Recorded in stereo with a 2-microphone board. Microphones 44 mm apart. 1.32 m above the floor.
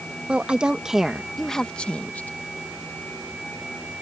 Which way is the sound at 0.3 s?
30° right (ahead or behind).